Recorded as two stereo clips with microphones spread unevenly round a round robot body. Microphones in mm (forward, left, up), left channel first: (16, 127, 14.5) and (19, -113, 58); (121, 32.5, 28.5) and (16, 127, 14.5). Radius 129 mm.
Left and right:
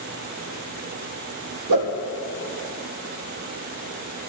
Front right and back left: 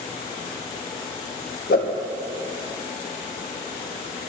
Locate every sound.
1.7 s a whoosh: 100° right, 3 m